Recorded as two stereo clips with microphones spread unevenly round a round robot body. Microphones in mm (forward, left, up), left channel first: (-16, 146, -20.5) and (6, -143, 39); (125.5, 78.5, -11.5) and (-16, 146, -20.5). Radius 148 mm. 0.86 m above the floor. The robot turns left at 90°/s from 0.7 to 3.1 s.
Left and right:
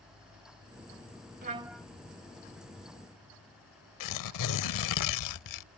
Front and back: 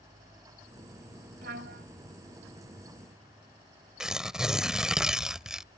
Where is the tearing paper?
65° left.